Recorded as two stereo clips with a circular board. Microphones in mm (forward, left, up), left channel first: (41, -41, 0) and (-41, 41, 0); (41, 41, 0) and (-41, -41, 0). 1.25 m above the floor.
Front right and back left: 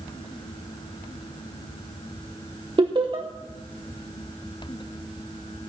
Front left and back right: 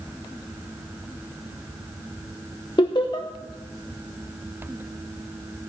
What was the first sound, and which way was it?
Laughter, 90° left.